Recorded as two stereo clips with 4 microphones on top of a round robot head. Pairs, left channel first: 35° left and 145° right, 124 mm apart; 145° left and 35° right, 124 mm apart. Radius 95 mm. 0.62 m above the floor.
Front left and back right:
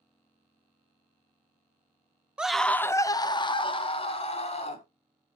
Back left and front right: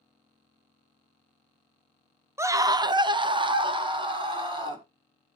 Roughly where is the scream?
Right.